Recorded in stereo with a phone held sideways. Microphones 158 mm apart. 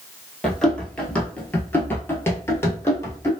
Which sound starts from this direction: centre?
Running footsteps, at 0.4 s.